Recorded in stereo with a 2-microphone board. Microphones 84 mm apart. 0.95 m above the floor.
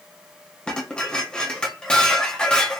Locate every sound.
0.7 s dishes clattering: 10° left (ahead or behind), 0.8 m